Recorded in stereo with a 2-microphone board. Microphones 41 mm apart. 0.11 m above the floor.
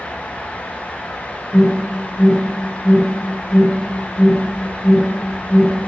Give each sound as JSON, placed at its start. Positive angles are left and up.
{"t": 1.5, "sound": "an alarm", "side_deg": 20, "distance_m": 3.5}